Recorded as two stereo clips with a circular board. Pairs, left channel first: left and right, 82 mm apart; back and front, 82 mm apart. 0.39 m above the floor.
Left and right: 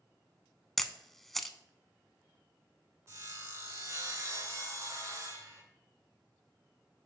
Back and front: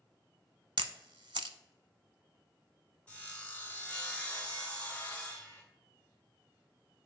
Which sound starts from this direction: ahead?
A camera shutter, at 0.8 s.